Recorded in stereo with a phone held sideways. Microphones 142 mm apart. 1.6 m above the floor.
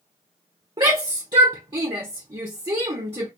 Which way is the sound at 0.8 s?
35° right (ahead or behind).